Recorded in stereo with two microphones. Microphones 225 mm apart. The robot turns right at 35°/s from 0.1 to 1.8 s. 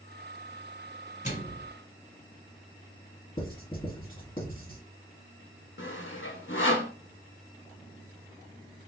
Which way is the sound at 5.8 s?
55° left (ahead or behind).